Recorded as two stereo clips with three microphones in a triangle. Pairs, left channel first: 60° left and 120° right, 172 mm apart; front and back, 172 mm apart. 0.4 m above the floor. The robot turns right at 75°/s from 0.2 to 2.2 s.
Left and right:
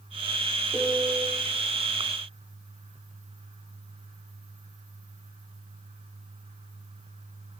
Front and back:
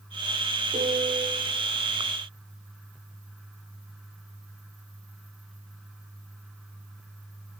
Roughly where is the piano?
Behind left.